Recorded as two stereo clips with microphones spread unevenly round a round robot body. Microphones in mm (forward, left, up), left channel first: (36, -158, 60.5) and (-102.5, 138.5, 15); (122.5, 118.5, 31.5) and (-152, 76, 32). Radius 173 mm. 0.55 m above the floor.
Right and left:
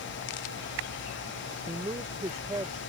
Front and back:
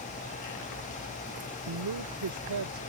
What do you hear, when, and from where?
1.7 s a woman speaking: 170° right